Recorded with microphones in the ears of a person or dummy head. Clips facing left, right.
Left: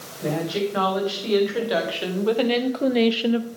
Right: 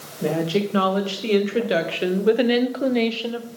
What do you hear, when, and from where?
0.2 s a woman speaking: 45° right (ahead or behind), 2.5 m; by 3.5 s 40° left (ahead or behind), 0.6 m